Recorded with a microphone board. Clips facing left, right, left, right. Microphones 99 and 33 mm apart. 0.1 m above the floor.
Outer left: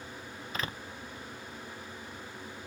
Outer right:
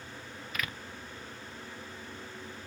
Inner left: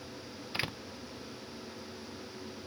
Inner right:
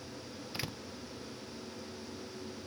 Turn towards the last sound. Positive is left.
turn(degrees=30)  # may be behind; listen again after turning